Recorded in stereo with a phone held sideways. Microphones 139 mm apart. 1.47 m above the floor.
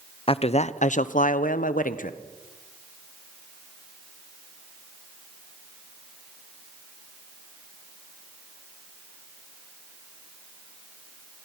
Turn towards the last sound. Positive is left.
turn(degrees=75)  # may be behind; listen again after turning